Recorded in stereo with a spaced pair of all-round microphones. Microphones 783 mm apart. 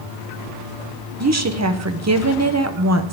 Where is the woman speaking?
20° right (ahead or behind), 0.7 m.